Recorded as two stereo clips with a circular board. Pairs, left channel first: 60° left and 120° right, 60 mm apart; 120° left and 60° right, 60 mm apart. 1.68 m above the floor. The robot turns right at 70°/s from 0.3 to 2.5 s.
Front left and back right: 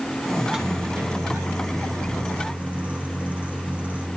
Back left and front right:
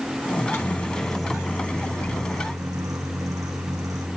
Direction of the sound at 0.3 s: 150° left.